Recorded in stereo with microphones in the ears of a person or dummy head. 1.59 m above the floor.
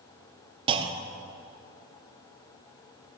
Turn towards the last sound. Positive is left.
turn(degrees=-30)  # may be behind; listen again after turning